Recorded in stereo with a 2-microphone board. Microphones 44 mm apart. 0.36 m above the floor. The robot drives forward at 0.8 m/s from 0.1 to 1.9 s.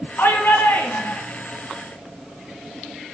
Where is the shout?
70° left (ahead or behind), 4 m; by 1.2 s 65° left (ahead or behind), 4 m.